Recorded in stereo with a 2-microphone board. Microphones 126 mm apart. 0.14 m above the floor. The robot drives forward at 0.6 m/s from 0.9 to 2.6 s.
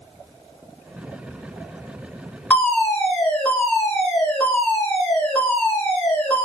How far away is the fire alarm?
About 2 m.